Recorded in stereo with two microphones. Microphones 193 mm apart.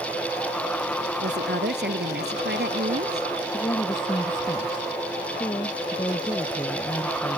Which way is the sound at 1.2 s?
60° right (ahead or behind).